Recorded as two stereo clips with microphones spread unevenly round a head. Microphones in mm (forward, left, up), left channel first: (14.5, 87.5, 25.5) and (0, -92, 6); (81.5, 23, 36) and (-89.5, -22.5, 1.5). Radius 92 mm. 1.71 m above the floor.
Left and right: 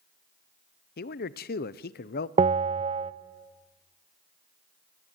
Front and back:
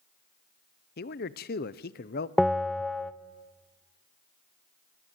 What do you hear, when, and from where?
1.0 s a man speaking: 50° left, 0.8 m
2.4 s a bell: 50° right, 0.5 m